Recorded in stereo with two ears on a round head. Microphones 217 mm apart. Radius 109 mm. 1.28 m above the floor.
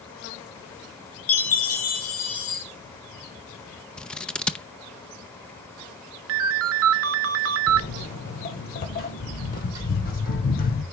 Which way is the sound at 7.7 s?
35° left (ahead or behind).